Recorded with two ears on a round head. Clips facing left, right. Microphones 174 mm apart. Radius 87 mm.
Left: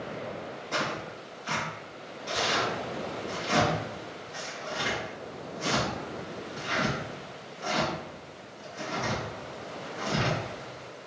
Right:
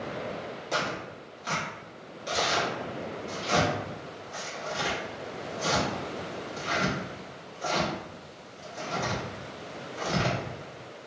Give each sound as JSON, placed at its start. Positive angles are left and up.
{"t": 0.7, "sound": "tearing paper", "side_deg": -40, "distance_m": 1.7}